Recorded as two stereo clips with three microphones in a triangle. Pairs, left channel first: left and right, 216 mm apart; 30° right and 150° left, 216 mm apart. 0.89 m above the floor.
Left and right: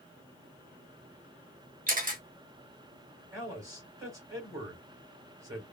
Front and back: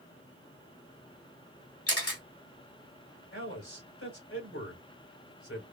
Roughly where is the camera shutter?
Ahead right.